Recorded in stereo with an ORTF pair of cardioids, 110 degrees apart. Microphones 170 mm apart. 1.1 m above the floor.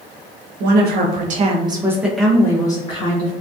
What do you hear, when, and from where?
0.6 s a woman speaking: 70° right, 0.8 m; by 3.3 s 35° left, 1.0 m